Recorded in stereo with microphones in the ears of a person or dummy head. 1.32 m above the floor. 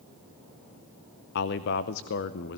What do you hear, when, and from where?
1.4 s a man speaking: 60° left (ahead or behind), 0.8 m